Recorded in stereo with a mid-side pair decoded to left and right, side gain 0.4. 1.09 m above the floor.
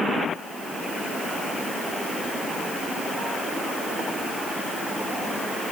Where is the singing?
I don't hear singing.